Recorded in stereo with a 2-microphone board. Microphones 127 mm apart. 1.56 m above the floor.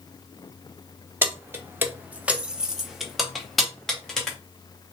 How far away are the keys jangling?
About 0.7 m.